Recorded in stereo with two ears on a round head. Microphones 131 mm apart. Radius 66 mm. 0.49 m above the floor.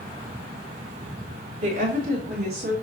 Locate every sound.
1.6 s a woman speaking: 50° right (ahead or behind), 1.8 m; by 2.7 s 70° right (ahead or behind), 2.5 m